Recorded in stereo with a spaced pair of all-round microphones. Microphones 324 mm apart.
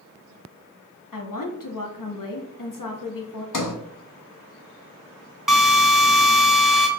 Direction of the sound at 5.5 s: Centre (ahead or behind).